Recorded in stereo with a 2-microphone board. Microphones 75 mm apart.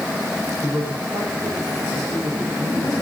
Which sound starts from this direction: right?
A man speaking, at 0.6 s.